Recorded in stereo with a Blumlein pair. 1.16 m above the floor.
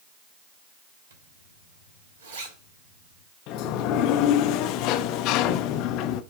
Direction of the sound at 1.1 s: 65° right.